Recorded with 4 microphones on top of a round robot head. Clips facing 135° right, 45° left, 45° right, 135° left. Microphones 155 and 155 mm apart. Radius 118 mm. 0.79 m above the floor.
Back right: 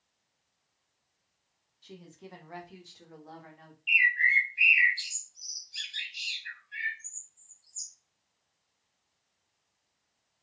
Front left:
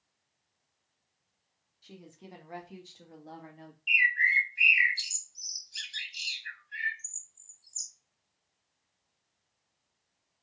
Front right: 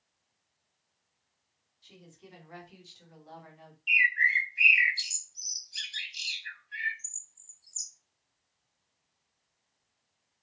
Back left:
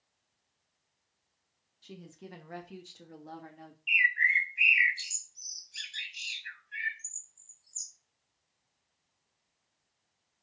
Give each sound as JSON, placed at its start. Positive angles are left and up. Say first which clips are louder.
{"t": 1.8, "sound": "a woman speaking", "louder": "back right 2 dB, back left 6 dB", "azimuth_deg": 125, "distance_m": 2.0}
{"t": 3.9, "sound": "a bird", "louder": "back right 1 dB, front right 1 dB", "azimuth_deg": 5, "distance_m": 1.5}